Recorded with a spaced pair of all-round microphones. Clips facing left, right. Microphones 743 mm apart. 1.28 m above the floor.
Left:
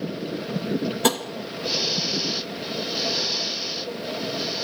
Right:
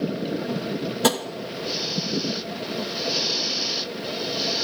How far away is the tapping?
About 0.6 m.